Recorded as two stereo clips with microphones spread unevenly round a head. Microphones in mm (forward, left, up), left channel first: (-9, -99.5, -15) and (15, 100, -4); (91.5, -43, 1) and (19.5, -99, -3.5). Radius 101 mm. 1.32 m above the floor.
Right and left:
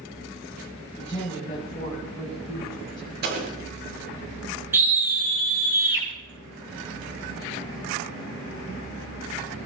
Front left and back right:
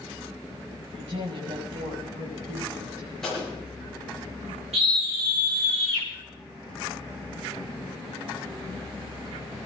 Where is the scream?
165° left, 8 m.